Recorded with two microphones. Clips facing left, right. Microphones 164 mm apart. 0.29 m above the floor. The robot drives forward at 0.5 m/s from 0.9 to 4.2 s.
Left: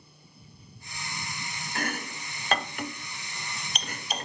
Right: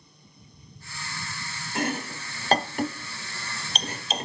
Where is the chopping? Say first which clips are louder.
Right 5 dB; 25° right (ahead or behind), 0.8 m.